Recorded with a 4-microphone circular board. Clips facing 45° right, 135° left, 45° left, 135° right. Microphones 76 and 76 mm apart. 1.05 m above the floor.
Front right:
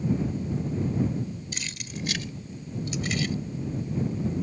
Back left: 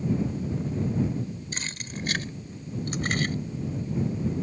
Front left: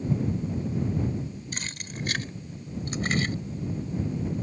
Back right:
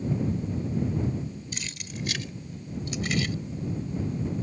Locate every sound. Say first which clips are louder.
1.5 s keys jangling: back left 1 dB, front left 1 dB; 85° left; by 3.3 s 95° left